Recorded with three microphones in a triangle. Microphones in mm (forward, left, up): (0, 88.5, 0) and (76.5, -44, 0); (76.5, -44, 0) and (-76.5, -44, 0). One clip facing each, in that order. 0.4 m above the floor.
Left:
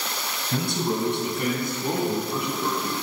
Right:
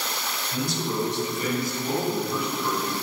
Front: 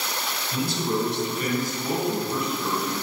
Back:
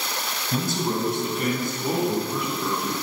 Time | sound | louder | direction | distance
0.5 | a man speaking | left 2 dB, even | 140° left | 2.5 m